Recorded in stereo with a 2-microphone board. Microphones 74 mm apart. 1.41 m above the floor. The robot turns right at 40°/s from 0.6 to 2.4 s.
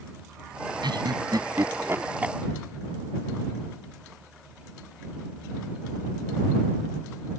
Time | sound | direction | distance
0.8 | laughter | 80° right | ?